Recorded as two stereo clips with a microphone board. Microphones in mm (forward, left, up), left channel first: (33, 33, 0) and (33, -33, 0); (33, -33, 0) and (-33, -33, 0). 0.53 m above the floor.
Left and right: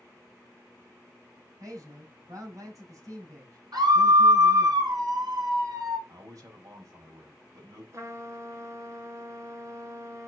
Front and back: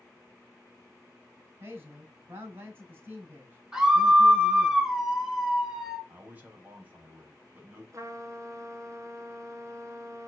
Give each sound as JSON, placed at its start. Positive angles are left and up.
{"t": 1.6, "sound": "a man speaking", "azimuth_deg": -125, "distance_m": 5.0}
{"t": 3.7, "sound": "a scream", "azimuth_deg": -100, "distance_m": 6.0}
{"t": 6.1, "sound": "a man speaking", "azimuth_deg": -115, "distance_m": 4.0}
{"t": 7.9, "sound": "a trumpet", "azimuth_deg": -135, "distance_m": 1.8}